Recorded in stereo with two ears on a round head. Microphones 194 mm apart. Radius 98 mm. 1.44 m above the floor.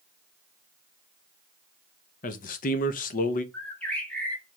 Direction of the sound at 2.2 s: 40° left (ahead or behind).